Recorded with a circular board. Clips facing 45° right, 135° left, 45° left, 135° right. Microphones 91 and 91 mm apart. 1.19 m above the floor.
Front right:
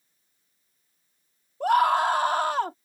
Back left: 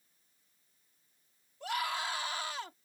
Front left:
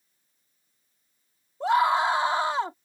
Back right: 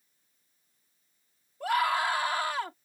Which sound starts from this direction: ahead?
A scream, at 1.6 s.